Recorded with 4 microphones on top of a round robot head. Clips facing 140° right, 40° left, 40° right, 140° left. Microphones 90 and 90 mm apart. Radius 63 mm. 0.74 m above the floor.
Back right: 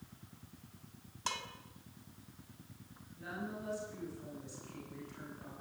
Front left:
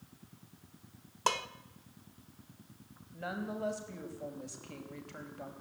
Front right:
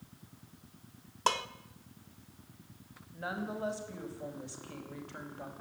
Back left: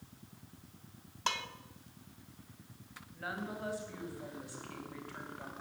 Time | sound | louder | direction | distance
1.3 | dishes clattering | front left 9 dB, front right 6 dB | 10° left | 1.2 m
3.1 | a woman speaking | front left 5 dB, front right 3 dB | 25° left | 5.5 m